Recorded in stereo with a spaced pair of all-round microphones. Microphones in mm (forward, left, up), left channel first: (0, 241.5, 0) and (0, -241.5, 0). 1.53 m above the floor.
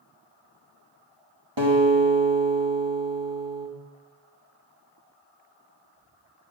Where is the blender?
I don't hear a blender.